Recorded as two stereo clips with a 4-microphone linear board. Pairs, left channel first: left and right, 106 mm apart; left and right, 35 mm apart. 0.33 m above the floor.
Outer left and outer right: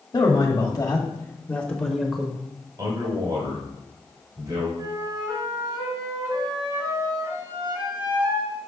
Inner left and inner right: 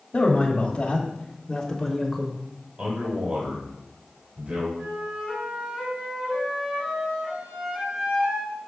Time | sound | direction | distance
0.1 | a man speaking | 40° left (ahead or behind) | 1.7 m
2.8 | a man speaking | 40° right (ahead or behind) | 1.8 m
4.8 | a flute | 35° right (ahead or behind) | 2.5 m